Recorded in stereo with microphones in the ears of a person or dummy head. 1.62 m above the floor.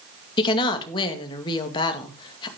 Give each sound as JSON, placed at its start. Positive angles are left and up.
{"t": 0.4, "sound": "a woman speaking", "side_deg": 25, "distance_m": 2.0}